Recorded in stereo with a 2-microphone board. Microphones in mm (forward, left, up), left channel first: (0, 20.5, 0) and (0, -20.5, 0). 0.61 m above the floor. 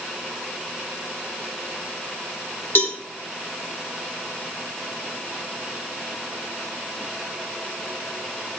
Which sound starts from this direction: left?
A cowbell, at 2.8 s.